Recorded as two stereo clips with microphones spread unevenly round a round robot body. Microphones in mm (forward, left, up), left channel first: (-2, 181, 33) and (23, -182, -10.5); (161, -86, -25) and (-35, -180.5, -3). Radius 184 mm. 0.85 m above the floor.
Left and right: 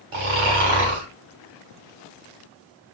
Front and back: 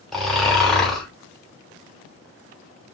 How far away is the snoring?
About 3 m.